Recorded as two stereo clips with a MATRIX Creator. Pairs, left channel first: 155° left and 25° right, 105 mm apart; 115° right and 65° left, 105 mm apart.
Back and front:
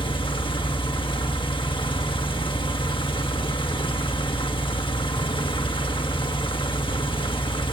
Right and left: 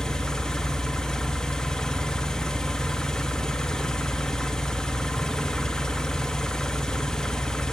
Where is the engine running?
165° left, 1.4 m.